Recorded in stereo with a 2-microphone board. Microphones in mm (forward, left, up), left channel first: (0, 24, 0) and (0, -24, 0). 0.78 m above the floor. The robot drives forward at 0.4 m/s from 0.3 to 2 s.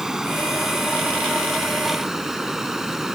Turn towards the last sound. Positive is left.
turn(degrees=-10)  # may be behind; listen again after turning